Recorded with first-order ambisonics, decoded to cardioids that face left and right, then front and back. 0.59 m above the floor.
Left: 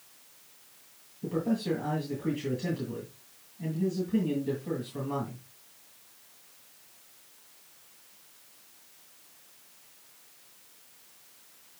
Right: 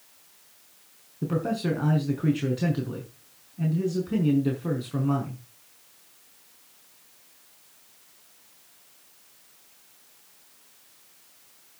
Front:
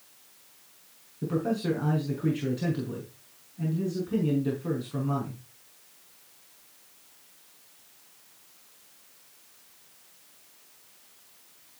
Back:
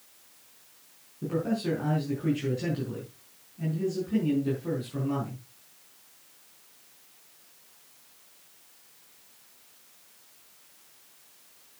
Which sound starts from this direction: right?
A man speaking, at 1.2 s.